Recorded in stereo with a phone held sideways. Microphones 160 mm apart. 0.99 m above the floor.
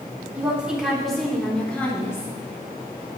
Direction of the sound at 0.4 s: 10° right (ahead or behind).